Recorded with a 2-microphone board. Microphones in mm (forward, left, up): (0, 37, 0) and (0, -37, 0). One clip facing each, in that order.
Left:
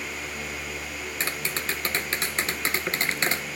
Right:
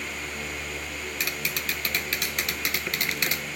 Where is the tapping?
35° left (ahead or behind).